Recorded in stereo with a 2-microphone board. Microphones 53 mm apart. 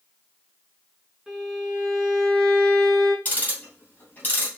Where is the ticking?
30° left (ahead or behind), 2.5 m.